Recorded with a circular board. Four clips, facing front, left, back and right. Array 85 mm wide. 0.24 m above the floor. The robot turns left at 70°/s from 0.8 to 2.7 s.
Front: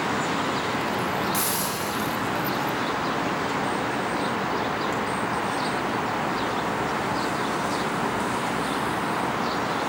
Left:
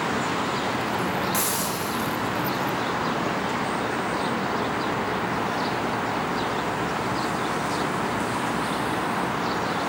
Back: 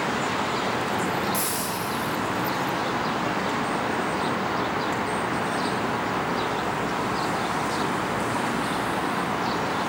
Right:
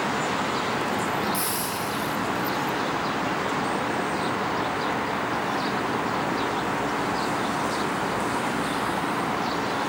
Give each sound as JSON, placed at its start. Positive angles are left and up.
{"t": 1.3, "sound": "a hiss", "azimuth_deg": 55, "distance_m": 5.0}